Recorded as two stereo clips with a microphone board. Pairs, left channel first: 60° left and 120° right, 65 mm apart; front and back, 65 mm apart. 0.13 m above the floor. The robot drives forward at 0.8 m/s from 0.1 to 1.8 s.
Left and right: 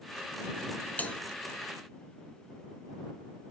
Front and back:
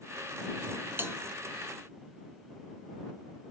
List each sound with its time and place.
1.0 s a bell: 125° left, 0.5 m; by 1.1 s 135° left, 0.6 m